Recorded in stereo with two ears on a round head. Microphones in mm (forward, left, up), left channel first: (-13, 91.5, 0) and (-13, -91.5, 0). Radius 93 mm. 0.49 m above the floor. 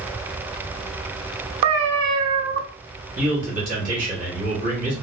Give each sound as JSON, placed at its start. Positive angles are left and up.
{"t": 1.6, "sound": "a cat meowing", "side_deg": -70, "distance_m": 0.7}
{"t": 3.2, "sound": "a man speaking", "side_deg": -35, "distance_m": 2.0}